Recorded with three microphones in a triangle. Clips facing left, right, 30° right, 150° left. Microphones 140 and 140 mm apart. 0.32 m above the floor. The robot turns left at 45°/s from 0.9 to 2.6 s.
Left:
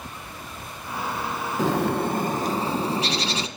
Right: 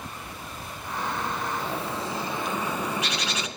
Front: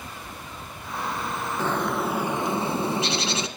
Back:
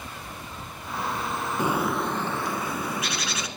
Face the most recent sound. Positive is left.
turn(degrees=30)